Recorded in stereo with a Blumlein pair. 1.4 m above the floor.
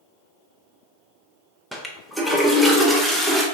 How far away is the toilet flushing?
About 0.6 m.